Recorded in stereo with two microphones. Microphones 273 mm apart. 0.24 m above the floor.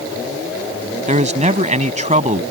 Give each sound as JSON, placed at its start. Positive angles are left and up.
{"t": 1.1, "sound": "a man speaking", "side_deg": -25}